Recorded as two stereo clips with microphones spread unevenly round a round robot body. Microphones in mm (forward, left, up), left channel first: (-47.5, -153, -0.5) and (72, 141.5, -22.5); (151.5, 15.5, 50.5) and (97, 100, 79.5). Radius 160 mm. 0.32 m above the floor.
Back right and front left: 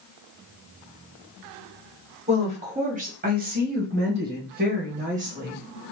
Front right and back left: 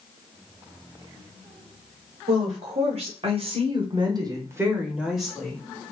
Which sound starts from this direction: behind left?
A woman speaking, at 2.3 s.